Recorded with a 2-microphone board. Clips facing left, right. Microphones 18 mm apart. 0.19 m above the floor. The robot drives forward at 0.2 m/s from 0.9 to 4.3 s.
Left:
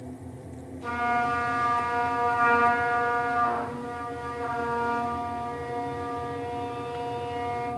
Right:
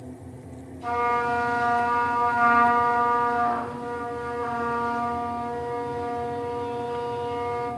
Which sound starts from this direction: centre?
A trumpet, at 0.8 s.